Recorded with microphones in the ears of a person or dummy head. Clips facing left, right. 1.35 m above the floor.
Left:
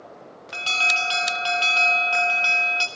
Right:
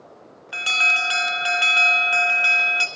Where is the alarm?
20° right (ahead or behind), 0.7 m.